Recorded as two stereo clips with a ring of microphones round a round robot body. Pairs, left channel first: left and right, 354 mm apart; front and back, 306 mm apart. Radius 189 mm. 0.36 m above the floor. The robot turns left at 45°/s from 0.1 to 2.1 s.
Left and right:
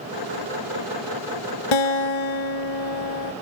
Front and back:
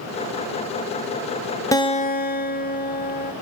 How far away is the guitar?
About 1.3 m.